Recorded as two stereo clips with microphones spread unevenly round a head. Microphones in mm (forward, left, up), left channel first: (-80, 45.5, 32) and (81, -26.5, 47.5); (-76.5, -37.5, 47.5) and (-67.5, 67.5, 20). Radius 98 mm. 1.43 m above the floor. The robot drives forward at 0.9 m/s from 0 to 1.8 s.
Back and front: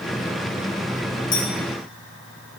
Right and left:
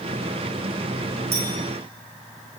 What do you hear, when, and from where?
1.3 s a clink: 110° left, 6 m